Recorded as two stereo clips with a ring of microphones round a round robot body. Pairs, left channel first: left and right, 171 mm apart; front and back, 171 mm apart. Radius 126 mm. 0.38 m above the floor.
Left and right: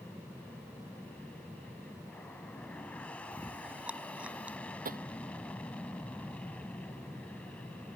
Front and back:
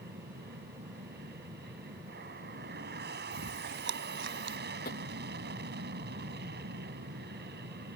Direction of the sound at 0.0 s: 175° left.